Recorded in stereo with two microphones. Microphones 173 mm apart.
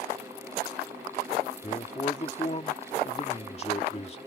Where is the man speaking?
35° left (ahead or behind).